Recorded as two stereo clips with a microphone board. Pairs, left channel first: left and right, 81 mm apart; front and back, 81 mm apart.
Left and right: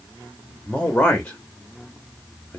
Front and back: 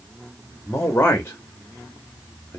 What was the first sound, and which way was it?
A man speaking, 25° left.